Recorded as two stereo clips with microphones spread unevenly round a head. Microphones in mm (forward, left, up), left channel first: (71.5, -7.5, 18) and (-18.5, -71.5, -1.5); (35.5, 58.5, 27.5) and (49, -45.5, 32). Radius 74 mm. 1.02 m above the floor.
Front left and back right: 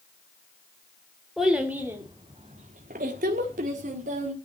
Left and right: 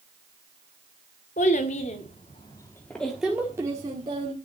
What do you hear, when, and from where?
1.4 s a child speaking: 125° left, 2 m; by 4.3 s 140° right, 2.5 m